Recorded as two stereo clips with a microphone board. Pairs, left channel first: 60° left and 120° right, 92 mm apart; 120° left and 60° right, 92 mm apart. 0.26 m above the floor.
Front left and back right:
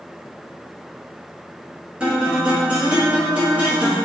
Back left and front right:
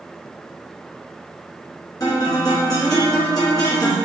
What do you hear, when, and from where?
2.0 s a guitar: 165° left, 1.3 m